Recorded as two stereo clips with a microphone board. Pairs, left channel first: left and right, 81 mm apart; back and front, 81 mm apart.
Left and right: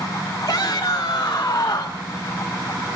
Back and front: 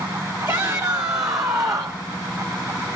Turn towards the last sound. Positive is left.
turn(degrees=40)